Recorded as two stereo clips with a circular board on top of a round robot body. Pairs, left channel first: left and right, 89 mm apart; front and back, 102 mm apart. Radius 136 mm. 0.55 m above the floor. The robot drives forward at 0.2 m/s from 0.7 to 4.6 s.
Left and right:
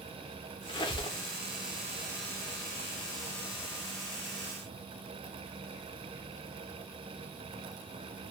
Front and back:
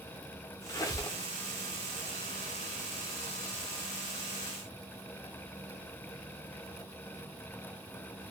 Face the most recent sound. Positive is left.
turn(degrees=140)